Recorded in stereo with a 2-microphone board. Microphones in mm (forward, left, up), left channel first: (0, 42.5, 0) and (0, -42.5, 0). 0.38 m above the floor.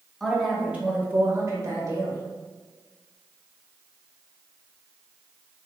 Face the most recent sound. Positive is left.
turn(degrees=-40)  # may be behind; listen again after turning